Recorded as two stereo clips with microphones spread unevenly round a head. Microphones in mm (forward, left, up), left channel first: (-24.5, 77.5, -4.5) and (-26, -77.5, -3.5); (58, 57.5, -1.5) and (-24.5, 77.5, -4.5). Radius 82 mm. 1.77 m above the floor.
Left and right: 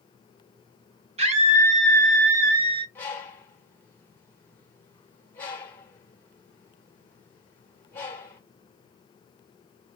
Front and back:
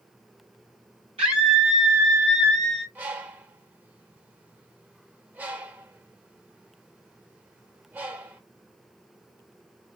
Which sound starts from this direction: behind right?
A scream, at 1.2 s.